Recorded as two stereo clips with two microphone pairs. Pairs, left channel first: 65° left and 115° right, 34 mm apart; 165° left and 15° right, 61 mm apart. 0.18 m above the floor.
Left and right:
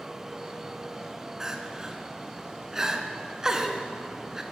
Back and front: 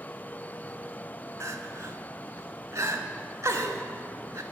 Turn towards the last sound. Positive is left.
turn(degrees=-40)